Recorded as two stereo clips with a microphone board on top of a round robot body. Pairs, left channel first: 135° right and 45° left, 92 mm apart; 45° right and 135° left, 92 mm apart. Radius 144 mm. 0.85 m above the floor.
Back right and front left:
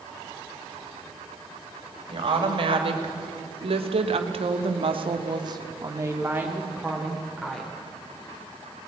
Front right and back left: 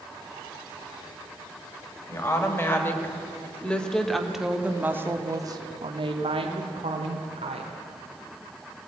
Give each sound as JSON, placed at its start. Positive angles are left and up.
{"t": 2.1, "sound": "a woman speaking", "azimuth_deg": 15, "distance_m": 4.0}